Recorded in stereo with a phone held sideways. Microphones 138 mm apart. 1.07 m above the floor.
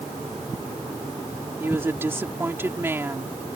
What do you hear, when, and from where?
1.6 s a woman speaking: 15° right (ahead or behind)